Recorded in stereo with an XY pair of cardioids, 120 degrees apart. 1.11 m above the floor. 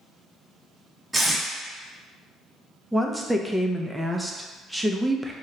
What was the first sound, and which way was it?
Tape being pulled, 10° right.